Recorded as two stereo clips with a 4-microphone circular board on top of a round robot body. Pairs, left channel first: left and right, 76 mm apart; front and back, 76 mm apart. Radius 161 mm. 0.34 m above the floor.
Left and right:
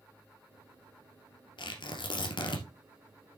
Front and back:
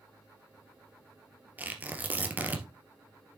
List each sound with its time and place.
1.6 s tearing paper: 110° left, 2 m